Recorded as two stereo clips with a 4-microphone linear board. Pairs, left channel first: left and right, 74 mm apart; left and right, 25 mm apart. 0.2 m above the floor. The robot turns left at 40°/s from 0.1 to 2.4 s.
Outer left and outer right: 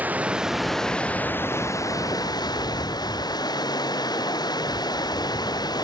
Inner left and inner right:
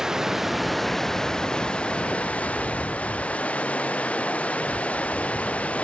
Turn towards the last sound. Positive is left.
turn(degrees=110)